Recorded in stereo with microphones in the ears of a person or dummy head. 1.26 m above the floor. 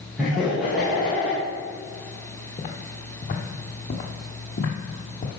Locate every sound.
0.2 s laughter: 5° right (ahead or behind), 1.8 m
2.6 s footsteps: 20° left (ahead or behind), 1.3 m; by 5.3 s 35° left (ahead or behind), 1.9 m